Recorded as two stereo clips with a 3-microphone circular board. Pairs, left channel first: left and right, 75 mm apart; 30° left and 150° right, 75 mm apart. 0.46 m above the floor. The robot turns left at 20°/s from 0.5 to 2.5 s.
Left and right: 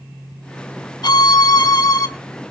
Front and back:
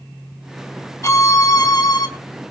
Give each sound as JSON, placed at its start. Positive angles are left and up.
{"t": 1.0, "sound": "a violin", "azimuth_deg": 75, "distance_m": 2.5}